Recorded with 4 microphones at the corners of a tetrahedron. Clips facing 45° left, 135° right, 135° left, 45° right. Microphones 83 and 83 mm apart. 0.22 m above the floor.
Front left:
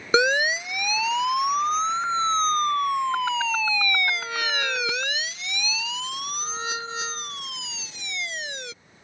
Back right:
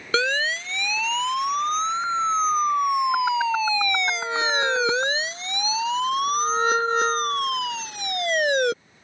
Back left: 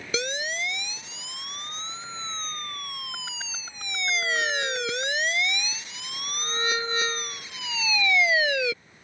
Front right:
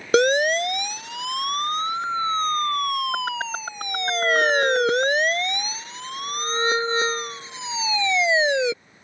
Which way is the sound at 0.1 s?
25° right.